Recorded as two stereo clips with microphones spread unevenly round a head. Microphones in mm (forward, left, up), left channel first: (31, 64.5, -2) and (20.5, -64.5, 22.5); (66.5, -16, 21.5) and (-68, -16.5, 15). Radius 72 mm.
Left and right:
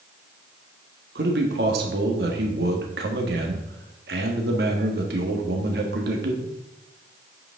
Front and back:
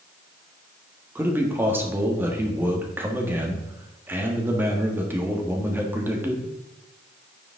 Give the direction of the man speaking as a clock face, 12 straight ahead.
4 o'clock.